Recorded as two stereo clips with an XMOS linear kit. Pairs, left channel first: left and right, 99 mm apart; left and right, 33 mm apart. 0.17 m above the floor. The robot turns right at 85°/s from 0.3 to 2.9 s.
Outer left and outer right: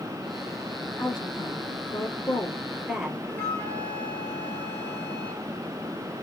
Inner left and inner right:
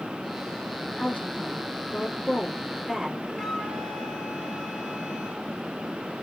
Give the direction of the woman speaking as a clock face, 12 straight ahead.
11 o'clock.